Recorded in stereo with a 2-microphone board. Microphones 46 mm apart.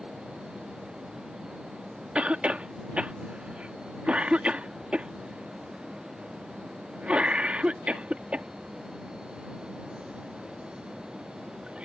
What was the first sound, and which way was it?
A cough, 25° right (ahead or behind).